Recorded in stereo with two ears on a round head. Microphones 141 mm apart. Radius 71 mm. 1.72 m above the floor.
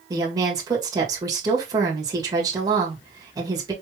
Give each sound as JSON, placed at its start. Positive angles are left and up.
{"t": 0.1, "sound": "a woman speaking", "side_deg": -25, "distance_m": 1.7}